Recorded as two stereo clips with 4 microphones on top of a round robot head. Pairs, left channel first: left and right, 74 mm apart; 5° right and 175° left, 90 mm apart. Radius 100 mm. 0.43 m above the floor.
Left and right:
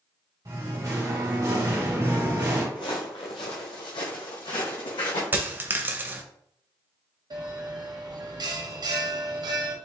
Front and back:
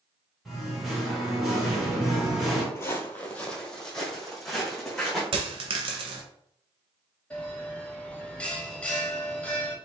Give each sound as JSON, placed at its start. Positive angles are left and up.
{"t": 0.5, "sound": "singing", "azimuth_deg": -95, "distance_m": 1.9}
{"t": 2.8, "sound": "footsteps", "azimuth_deg": 55, "distance_m": 0.7}
{"t": 5.3, "sound": "a dropped coin", "azimuth_deg": -155, "distance_m": 0.6}
{"t": 7.3, "sound": "a bell", "azimuth_deg": -80, "distance_m": 0.8}